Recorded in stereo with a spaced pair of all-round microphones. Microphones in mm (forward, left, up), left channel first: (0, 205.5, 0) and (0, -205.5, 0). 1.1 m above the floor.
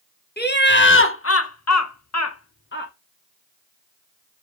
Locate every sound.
0.4 s laughter: 25° left (ahead or behind), 1.6 m